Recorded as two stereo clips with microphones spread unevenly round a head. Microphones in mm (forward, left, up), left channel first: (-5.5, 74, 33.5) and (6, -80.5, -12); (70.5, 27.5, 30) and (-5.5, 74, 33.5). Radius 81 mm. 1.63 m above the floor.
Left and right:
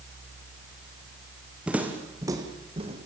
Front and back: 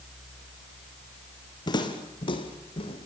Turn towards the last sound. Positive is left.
turn(degrees=-30)